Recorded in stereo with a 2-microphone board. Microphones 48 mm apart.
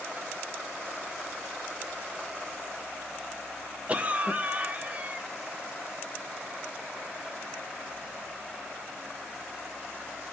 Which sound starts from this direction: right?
A cough, at 3.9 s.